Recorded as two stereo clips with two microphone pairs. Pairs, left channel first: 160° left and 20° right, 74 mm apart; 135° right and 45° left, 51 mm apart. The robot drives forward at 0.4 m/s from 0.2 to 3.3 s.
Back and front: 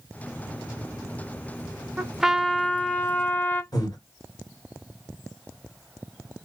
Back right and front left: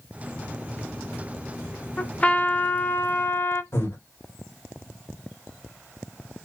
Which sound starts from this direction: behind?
Breathing, at 3.7 s.